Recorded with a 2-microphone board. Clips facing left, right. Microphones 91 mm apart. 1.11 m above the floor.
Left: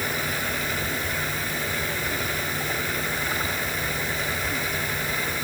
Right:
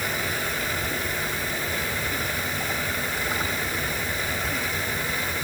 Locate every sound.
Only background noise.